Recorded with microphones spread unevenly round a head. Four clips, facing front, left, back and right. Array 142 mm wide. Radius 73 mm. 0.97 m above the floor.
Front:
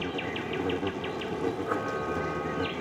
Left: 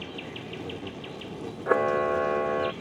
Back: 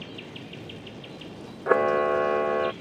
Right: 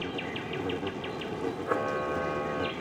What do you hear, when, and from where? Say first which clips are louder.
0.0 s an insect: right 4 dB, front 8 dB; 20° right
1.7 s a camera shutter: left 8 dB, back 9 dB; 155° left